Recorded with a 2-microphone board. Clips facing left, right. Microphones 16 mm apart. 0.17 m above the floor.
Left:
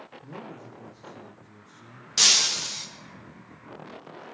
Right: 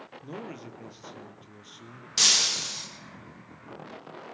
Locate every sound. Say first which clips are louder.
0.2 s a man speaking: right 3 dB; 70° right (ahead or behind), 4 m
2.2 s breaking glass: left 2 dB; 5° left (ahead or behind), 5.5 m